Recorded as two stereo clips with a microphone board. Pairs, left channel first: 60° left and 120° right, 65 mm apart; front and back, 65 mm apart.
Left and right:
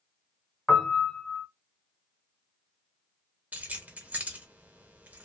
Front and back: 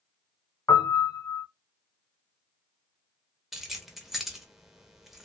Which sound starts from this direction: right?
Keys jangling, at 3.5 s.